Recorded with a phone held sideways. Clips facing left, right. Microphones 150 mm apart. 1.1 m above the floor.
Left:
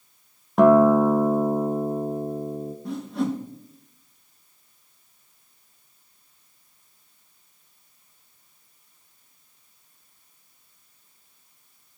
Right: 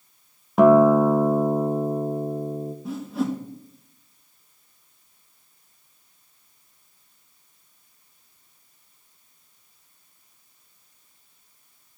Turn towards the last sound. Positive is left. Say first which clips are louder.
# even
turn(degrees=-5)  # may be behind; listen again after turning